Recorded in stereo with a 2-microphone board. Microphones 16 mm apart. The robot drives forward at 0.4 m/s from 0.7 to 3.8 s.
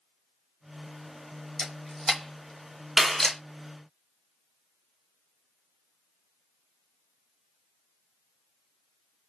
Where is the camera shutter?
15° left (ahead or behind), 1.4 m; by 3.4 s 30° left (ahead or behind), 0.7 m.